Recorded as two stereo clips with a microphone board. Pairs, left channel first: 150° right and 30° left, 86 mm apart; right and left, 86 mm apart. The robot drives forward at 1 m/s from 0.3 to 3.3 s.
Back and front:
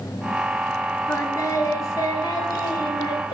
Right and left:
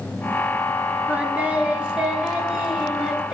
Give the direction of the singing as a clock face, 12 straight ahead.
7 o'clock.